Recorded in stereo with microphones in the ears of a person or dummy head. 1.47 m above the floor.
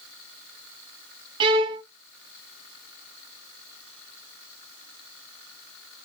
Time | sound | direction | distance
1.4 | a violin | 30° right (ahead or behind) | 0.6 m